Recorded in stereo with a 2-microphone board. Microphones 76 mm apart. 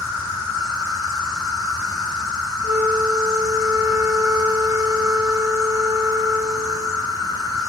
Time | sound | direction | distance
0.0 | an insect | 50° right (ahead or behind) | 1.3 m
2.6 | a flute | 45° right (ahead or behind) | 0.5 m